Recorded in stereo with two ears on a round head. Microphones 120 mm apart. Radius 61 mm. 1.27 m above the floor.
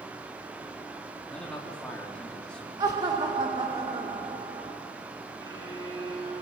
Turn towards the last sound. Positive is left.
turn(degrees=-30)  # may be behind; listen again after turning